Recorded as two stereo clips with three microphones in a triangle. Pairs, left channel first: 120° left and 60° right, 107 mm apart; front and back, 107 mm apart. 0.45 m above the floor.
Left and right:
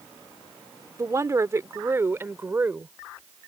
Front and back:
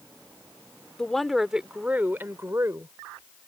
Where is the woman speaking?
75° right; by 3.0 s 125° right.